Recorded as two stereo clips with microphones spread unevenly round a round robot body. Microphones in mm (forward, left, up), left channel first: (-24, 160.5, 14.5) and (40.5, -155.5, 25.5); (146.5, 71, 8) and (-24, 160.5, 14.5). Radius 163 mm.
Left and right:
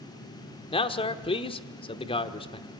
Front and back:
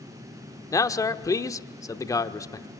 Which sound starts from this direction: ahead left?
A man speaking, at 0.7 s.